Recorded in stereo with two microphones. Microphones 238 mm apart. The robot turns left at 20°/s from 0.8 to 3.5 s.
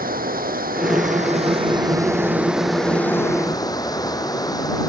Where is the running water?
140° right; by 4.9 s 165° left.